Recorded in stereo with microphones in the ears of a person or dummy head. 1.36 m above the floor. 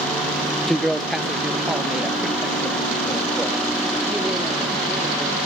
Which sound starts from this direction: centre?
A man speaking, at 0.7 s.